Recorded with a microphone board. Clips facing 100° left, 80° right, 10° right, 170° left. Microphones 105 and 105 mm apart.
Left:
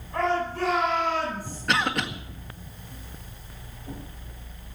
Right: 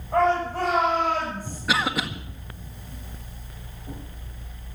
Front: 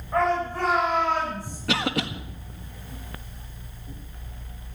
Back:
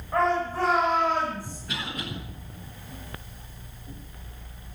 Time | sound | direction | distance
0.1 | a shout | 100° right | 6.5 m
1.7 | a cough | 5° left | 1.6 m